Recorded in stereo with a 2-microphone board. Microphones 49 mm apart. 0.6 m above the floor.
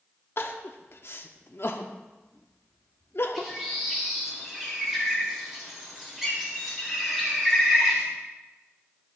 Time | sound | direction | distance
0.4 | crying | 55° left (ahead or behind) | 0.7 m
3.4 | a bird | 5° right (ahead or behind) | 2.0 m